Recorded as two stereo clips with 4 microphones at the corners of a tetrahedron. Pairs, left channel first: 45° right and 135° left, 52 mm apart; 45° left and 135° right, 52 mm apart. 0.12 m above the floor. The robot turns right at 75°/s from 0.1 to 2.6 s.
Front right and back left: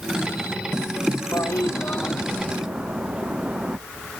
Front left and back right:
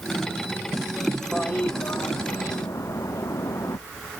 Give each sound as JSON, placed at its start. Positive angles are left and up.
{"t": 1.3, "sound": "a toilet flushing", "azimuth_deg": -35}